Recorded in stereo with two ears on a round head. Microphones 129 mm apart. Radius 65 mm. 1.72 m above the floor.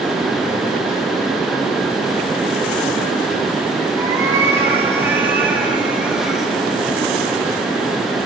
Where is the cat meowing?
20° right (ahead or behind), 3 m; by 6.5 s centre (ahead or behind), 1.9 m.